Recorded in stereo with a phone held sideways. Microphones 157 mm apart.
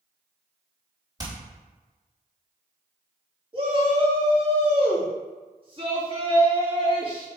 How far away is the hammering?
About 3 m.